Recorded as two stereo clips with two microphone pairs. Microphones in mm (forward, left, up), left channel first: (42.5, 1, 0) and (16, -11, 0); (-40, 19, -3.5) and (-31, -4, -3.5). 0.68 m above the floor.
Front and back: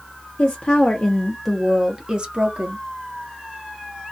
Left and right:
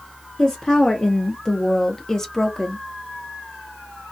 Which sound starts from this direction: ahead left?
A woman speaking, at 0.4 s.